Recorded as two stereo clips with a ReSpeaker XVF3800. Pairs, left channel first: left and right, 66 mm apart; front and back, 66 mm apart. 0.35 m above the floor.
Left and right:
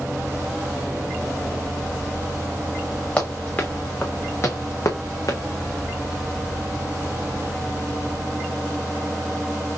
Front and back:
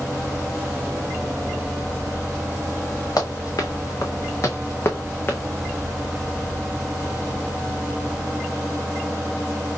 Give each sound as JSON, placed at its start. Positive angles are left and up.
{"t": 3.2, "sound": "running footsteps", "azimuth_deg": 20, "distance_m": 2.0}